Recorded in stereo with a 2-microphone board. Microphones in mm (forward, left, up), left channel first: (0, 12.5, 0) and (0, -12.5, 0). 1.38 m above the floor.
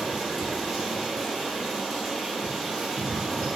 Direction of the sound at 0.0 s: 5° right (ahead or behind).